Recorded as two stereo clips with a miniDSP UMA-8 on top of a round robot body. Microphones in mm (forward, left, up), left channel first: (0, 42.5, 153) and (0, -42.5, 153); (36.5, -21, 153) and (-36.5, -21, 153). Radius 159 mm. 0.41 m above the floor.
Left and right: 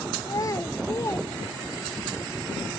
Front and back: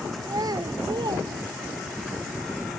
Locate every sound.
0.2 s a child speaking: 140° left; by 2.0 s 155° left